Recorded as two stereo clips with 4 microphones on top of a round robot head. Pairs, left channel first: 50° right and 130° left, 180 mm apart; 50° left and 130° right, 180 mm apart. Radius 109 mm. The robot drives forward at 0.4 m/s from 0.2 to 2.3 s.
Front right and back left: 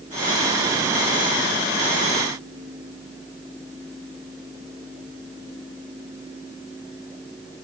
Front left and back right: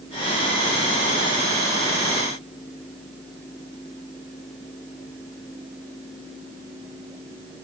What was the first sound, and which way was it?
Only background noise.